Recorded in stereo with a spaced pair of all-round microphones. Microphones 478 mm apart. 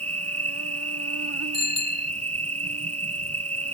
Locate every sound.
0.0 s an insect: 30° right (ahead or behind)
1.5 s a bicycle bell: 45° left (ahead or behind)